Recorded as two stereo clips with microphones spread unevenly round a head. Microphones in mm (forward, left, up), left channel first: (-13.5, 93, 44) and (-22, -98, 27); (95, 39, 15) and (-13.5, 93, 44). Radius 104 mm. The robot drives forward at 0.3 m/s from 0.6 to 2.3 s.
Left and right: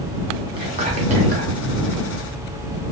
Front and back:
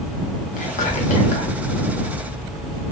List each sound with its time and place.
0.6 s whispering: 30° right, 0.7 m; by 1.5 s 65° right, 0.5 m